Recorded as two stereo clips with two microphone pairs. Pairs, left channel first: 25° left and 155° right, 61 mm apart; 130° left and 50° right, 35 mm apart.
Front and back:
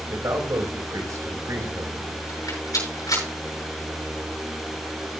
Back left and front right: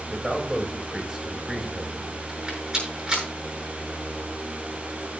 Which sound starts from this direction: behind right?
A man speaking, at 0.1 s.